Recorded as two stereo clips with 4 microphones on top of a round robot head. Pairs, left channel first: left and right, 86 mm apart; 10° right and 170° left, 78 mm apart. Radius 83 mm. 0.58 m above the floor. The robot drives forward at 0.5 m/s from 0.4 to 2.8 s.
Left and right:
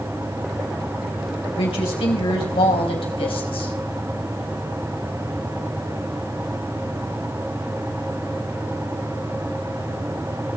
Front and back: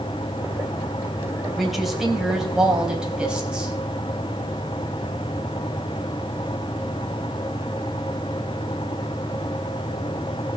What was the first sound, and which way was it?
A woman speaking, 80° left.